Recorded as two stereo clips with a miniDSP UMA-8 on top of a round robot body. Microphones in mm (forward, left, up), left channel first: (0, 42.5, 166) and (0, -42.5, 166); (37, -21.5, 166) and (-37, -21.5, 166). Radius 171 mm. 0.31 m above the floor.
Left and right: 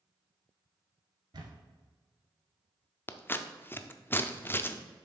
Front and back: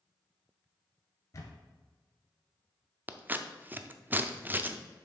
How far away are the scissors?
About 0.7 m.